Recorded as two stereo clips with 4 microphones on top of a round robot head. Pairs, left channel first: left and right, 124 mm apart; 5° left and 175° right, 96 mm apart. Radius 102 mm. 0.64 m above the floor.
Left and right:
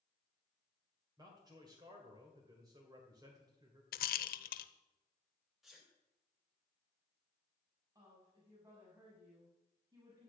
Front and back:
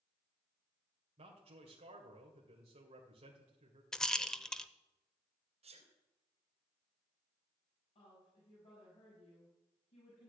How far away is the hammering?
I don't hear hammering.